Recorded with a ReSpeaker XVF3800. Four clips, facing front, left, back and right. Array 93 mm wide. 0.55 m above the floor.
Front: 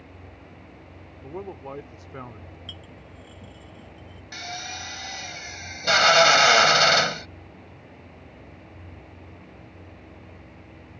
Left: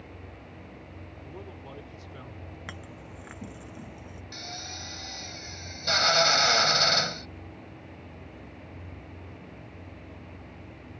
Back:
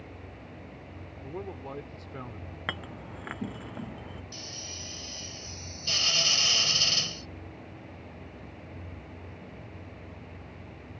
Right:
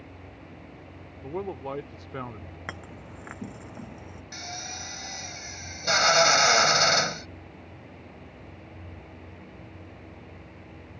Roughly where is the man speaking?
Right.